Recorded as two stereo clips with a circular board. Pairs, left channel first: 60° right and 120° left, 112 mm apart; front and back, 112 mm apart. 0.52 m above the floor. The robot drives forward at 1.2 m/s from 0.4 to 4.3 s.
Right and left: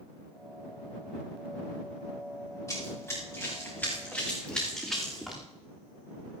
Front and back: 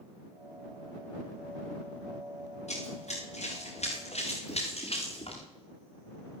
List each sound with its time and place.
2.7 s running footsteps: 5° left, 8 m; by 5.4 s 30° left, 5 m